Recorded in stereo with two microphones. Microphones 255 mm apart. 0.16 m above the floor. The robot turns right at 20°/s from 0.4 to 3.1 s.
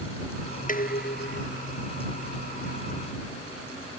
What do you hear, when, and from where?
0.7 s dishes clattering: 30° left (ahead or behind); by 1.5 s 45° left (ahead or behind)